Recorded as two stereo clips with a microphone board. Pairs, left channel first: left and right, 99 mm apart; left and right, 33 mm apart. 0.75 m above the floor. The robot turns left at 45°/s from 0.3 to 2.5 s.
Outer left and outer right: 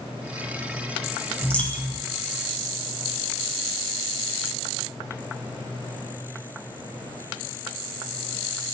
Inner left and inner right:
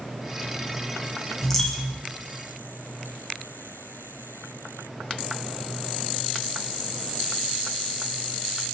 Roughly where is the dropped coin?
Centre.